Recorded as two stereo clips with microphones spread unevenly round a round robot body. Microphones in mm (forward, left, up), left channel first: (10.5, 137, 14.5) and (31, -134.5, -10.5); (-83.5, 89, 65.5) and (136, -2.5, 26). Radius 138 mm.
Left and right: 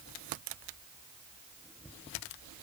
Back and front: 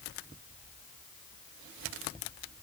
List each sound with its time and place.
Only background noise.